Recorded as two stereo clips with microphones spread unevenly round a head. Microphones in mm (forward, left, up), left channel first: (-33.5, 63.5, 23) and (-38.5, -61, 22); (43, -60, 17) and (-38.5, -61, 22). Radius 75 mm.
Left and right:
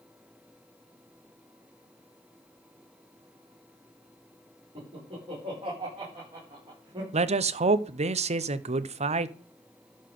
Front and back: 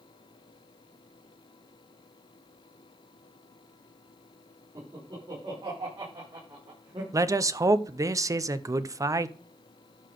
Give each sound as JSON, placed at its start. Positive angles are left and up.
{"t": 4.8, "sound": "laughter", "azimuth_deg": -140, "distance_m": 5.5}
{"t": 7.1, "sound": "a man speaking", "azimuth_deg": -125, "distance_m": 0.7}